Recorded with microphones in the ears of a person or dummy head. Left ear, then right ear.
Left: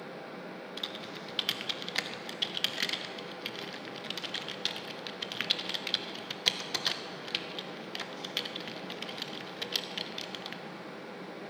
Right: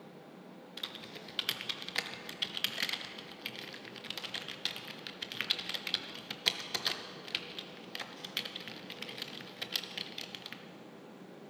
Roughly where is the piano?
I don't hear a piano.